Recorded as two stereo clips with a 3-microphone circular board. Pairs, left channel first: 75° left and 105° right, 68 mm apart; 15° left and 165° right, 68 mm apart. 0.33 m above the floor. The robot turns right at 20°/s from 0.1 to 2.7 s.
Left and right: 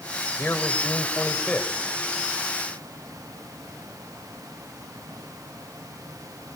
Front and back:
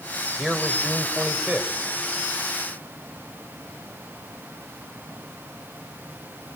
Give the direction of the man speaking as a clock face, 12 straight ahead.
9 o'clock.